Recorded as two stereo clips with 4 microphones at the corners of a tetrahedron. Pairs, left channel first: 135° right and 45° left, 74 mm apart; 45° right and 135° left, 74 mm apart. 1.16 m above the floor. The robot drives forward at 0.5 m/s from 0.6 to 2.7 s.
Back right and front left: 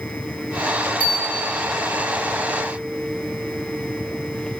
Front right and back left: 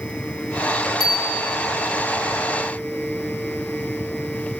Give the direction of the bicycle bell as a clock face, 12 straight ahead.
2 o'clock.